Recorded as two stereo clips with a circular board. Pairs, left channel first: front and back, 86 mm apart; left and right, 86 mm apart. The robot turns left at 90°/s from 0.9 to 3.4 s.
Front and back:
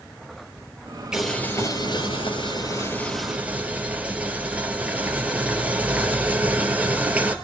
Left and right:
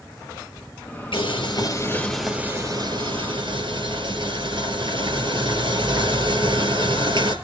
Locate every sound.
1.1 s boiling: 100° left, 2.5 m; by 7.3 s 105° right, 2.5 m